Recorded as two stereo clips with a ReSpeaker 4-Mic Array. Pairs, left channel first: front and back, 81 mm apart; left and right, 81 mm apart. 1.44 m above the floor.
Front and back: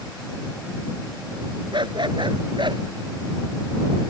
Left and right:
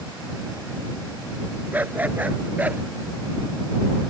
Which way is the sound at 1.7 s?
160° right.